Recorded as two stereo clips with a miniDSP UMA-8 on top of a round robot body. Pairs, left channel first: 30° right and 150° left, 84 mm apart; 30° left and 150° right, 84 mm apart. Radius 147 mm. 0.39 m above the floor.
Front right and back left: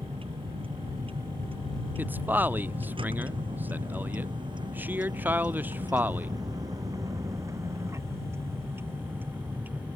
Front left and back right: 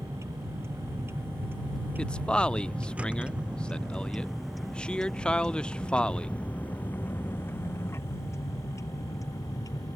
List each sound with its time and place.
0.0 s a vehicle: 155° left; by 10.0 s 80° left
2.0 s a man speaking: 100° left